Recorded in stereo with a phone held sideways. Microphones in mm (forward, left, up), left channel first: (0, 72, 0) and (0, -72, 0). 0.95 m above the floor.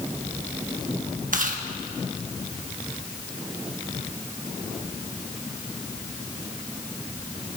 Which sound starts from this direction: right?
Chewing, at 1.3 s.